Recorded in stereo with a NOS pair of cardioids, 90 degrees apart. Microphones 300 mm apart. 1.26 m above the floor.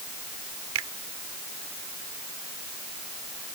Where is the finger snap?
60° right.